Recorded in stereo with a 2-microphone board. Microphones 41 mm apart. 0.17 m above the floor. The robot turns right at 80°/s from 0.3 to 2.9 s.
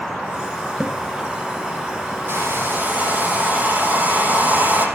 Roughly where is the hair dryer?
Right.